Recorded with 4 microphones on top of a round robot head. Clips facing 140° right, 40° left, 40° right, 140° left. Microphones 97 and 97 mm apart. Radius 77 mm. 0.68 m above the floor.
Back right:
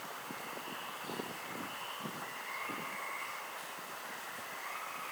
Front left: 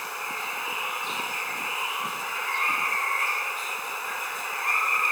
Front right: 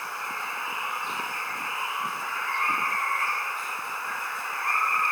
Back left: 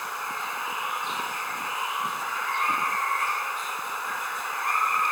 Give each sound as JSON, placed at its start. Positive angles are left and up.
{"t": 0.0, "sound": "running water", "azimuth_deg": 60}